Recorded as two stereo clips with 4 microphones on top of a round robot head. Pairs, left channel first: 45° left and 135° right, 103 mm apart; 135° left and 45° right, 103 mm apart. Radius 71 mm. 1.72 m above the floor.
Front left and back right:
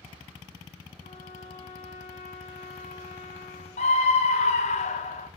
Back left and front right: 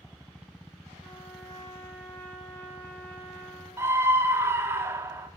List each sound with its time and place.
1.0 s a trumpet: 70° left, 3 m
3.8 s a scream: 25° left, 1.0 m